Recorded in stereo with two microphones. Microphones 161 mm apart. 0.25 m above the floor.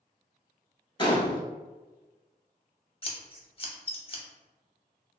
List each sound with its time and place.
1.0 s a gunshot: 30° left (ahead or behind), 0.6 m
3.0 s scissors: 35° left (ahead or behind), 0.5 m